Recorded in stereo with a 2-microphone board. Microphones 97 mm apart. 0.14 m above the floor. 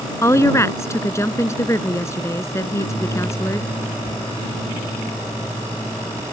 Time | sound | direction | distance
0.2 | a woman speaking | 30° left (ahead or behind) | ?
2.6 | a microwave | 75° left (ahead or behind) | ?